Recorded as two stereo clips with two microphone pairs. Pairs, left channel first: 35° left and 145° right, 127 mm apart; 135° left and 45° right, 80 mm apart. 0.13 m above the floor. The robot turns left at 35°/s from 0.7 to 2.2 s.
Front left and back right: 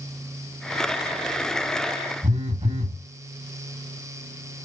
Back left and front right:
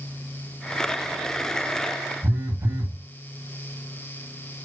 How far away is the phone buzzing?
About 5 m.